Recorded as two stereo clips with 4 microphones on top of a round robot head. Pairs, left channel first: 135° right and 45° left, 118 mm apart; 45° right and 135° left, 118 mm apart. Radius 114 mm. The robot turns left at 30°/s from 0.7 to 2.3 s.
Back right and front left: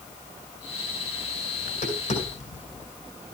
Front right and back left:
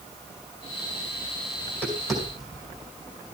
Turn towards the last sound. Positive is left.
turn(degrees=-140)